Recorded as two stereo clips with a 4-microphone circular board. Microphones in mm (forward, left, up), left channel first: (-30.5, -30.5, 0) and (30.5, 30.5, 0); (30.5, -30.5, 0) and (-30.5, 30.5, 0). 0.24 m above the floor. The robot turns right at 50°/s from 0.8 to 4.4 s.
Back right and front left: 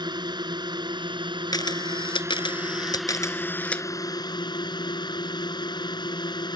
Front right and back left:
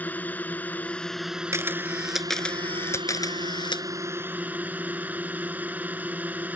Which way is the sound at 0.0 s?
25° left.